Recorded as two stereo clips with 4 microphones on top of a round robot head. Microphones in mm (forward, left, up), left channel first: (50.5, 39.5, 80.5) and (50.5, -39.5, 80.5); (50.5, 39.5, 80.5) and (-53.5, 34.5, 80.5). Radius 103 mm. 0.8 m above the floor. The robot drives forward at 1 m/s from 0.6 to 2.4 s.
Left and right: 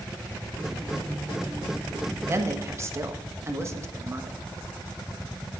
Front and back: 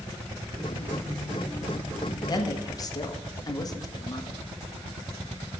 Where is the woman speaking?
40° right, 1.6 m; by 4.4 s 45° right, 1.5 m.